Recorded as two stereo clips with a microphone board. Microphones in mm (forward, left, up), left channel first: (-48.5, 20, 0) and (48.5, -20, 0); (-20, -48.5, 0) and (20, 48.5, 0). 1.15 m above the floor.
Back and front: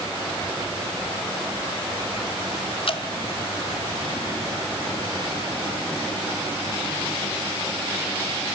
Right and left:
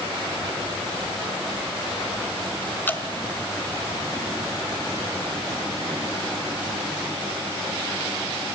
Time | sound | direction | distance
2.9 | dripping | straight behind | 1.8 m